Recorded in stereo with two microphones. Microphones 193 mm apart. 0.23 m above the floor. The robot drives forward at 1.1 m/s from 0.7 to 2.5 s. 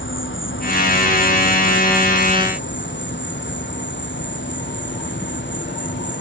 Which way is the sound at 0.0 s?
85° left.